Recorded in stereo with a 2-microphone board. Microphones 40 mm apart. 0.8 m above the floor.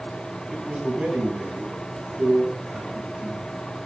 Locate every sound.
0.5 s a man speaking: 20° right (ahead or behind), 5.5 m